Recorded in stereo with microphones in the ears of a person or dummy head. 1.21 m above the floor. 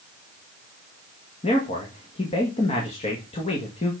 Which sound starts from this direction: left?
A man speaking, at 1.4 s.